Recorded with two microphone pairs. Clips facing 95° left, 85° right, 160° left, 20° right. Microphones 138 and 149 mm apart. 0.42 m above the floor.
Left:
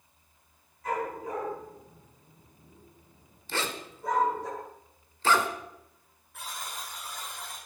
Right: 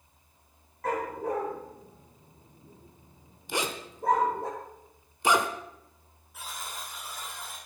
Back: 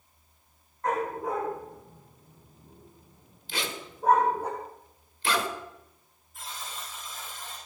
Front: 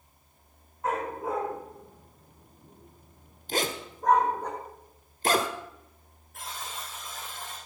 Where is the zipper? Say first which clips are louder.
Right 2 dB, front 6 dB; 20° right, 1.6 m.